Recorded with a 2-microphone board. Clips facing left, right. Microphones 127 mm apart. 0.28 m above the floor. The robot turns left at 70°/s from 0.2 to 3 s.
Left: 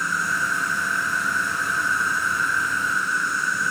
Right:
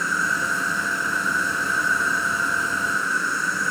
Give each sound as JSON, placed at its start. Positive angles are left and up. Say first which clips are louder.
{"t": 0.0, "sound": "an insect", "louder": "right 1 dB", "azimuth_deg": 145, "distance_m": 1.9}